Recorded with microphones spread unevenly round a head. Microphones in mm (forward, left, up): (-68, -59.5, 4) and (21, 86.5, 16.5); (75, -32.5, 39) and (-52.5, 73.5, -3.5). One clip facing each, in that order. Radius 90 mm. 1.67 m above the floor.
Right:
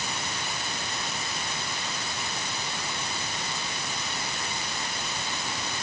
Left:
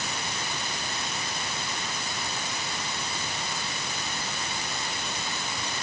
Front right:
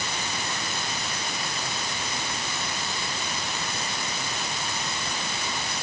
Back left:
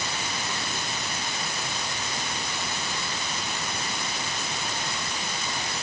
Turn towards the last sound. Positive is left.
No sound to turn to.